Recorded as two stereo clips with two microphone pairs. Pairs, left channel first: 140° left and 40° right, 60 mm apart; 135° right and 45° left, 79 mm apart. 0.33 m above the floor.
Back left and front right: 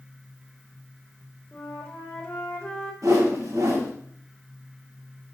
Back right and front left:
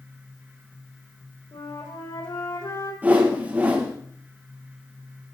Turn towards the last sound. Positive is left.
turn(degrees=-20)